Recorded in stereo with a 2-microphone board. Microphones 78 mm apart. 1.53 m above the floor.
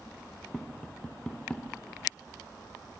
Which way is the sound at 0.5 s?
10° left (ahead or behind).